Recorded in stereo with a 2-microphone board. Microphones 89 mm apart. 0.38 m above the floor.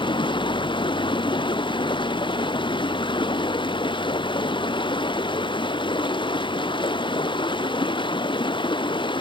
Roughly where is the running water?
Left.